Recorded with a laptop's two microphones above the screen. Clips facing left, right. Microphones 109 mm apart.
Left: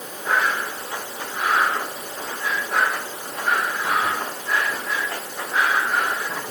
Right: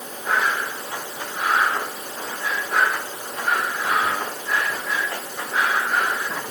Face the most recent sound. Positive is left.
No sound to turn to.